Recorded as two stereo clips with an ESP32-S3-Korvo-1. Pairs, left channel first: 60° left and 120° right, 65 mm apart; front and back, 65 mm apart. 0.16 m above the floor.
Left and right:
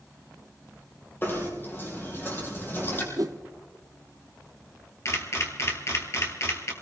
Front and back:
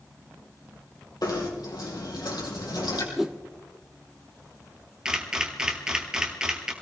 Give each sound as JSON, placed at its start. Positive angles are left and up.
{"t": 1.2, "sound": "knocking", "azimuth_deg": 0, "distance_m": 3.5}
{"t": 3.2, "sound": "a whoosh", "azimuth_deg": -95, "distance_m": 1.1}
{"t": 5.0, "sound": "a camera shutter", "azimuth_deg": 100, "distance_m": 2.0}